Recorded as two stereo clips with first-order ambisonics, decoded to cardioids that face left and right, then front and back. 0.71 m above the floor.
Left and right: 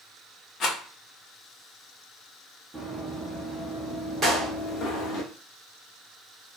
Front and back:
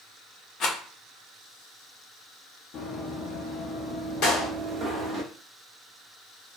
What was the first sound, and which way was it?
A rattle, 45° left.